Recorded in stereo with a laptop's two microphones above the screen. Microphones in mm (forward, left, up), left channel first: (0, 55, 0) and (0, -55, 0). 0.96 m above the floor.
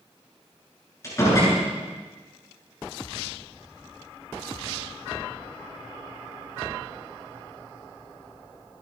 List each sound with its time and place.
1.0 s a door slam: 30° left (ahead or behind), 8.5 m